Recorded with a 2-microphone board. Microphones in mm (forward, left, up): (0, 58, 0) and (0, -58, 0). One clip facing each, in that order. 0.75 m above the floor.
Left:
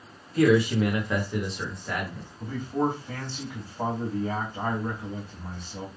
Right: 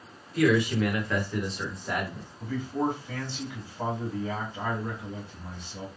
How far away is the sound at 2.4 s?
About 2.0 m.